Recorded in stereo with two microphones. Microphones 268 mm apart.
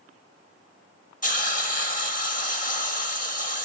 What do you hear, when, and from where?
1.2 s a hiss: 30° left (ahead or behind), 1.8 m